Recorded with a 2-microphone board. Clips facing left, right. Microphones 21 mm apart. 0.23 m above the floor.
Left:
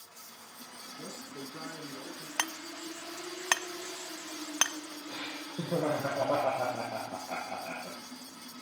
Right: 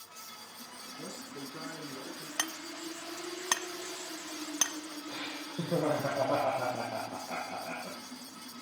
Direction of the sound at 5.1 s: 65° left (ahead or behind).